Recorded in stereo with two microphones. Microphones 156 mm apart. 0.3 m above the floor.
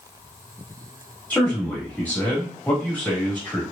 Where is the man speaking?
10° left (ahead or behind), 1.5 m.